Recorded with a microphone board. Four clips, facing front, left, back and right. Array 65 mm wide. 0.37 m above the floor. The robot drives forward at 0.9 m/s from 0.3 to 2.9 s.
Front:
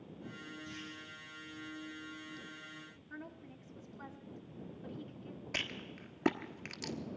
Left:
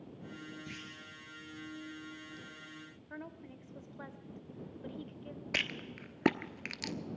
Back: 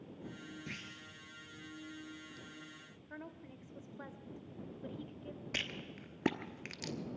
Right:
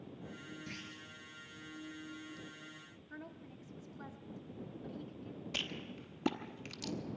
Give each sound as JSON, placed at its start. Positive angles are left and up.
{"t": 0.7, "sound": "a clunk", "azimuth_deg": -175, "distance_m": 2.5}
{"t": 3.1, "sound": "a woman speaking", "azimuth_deg": 110, "distance_m": 1.2}
{"t": 5.5, "sound": "a rattle", "azimuth_deg": 90, "distance_m": 1.1}